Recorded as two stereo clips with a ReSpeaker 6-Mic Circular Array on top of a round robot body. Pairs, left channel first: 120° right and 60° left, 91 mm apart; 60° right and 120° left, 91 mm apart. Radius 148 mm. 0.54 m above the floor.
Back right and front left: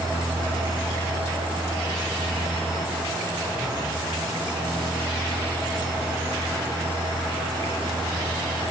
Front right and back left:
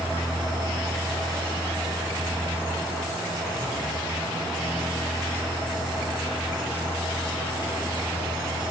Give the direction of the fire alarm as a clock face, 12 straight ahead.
I don't hear a fire alarm.